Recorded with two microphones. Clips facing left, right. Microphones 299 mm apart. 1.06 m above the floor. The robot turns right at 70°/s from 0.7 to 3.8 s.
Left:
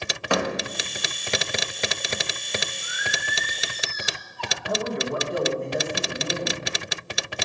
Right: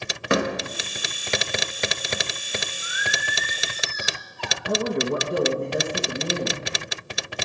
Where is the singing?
70° right, 1.4 m; by 4.6 s 5° right, 1.4 m.